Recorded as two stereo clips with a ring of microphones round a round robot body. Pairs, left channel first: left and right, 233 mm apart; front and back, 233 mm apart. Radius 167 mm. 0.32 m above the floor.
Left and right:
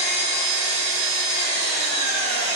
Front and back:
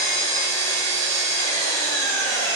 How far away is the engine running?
About 1.8 m.